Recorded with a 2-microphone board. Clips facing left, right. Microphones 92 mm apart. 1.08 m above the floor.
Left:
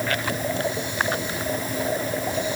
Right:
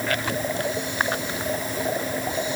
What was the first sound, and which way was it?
Only background noise.